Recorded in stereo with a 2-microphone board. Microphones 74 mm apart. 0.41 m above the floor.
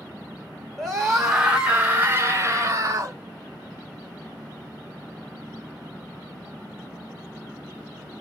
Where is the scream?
5° left (ahead or behind), 1.5 m; by 3.2 s 50° right (ahead or behind), 1.6 m.